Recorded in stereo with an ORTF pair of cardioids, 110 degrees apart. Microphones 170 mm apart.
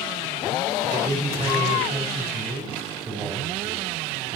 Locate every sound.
0.9 s a man speaking: 20° right, 3.5 m